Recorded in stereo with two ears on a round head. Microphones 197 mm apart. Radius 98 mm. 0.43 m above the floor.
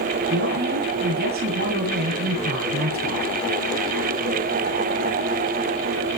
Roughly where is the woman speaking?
Right.